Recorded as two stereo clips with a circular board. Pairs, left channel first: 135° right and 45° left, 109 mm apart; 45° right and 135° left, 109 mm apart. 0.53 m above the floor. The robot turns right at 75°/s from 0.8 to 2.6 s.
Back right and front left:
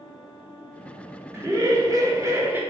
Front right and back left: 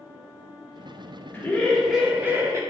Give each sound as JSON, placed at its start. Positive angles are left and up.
{"t": 1.3, "sound": "laughter", "azimuth_deg": 5, "distance_m": 0.7}